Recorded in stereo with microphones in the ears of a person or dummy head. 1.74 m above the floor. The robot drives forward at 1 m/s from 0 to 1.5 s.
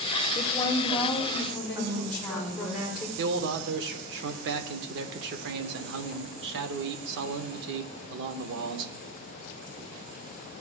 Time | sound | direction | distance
0.3 | a woman speaking | 30° left (ahead or behind) | 0.6 m
1.8 | a woman speaking | 30° right (ahead or behind) | 3.5 m
3.2 | a man speaking | 65° right (ahead or behind) | 0.7 m